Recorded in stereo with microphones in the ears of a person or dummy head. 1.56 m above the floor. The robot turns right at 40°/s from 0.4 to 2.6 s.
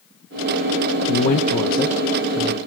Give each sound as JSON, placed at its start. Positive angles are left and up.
{"t": 1.1, "sound": "a man speaking", "azimuth_deg": 125, "distance_m": 0.9}